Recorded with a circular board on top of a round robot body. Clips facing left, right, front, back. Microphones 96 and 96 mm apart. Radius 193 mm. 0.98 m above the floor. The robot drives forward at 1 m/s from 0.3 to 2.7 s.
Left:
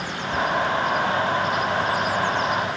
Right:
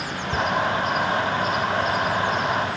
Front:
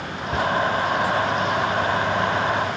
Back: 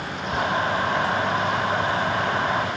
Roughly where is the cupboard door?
Ahead right.